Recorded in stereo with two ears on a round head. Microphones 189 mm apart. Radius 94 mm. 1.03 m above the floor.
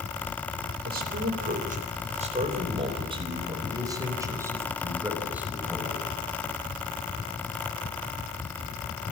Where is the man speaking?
50° right (ahead or behind), 4 m; by 6.1 s 5° right (ahead or behind), 5.5 m.